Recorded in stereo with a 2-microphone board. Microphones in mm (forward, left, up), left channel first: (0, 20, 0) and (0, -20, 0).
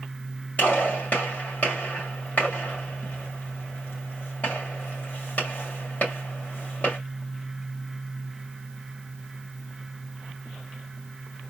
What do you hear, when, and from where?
0.6 s a gunshot: 50° left (ahead or behind), 2 m